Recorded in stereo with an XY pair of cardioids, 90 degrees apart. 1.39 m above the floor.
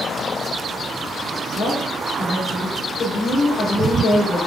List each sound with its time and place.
1.6 s a woman speaking: 70° left, 2.0 m